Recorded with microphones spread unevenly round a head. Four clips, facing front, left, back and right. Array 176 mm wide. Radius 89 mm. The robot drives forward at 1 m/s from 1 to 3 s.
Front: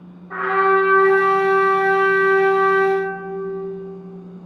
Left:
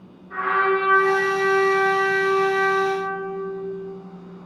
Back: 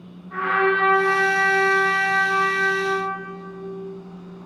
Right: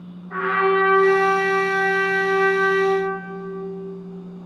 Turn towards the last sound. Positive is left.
turn(degrees=-30)